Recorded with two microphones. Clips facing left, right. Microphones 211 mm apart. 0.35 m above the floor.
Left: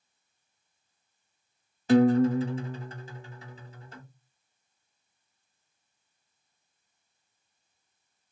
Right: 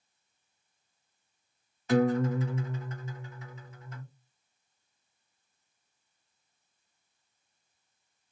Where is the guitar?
30° left (ahead or behind), 0.6 m.